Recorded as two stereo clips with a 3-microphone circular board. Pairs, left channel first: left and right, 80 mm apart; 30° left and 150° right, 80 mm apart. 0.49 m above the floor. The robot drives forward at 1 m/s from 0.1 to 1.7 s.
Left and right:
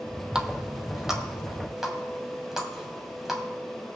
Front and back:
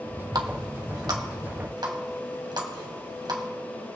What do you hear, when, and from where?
0.3 s a running tap: 170° right, 0.9 m; by 3.4 s 175° right, 2 m